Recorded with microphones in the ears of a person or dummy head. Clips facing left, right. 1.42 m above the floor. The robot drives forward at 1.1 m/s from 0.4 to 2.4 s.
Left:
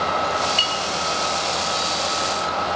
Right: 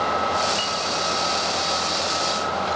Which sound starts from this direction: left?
A clink, at 0.6 s.